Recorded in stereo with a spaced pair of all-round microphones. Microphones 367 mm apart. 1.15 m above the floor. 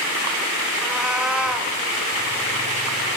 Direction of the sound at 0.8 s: Centre (ahead or behind).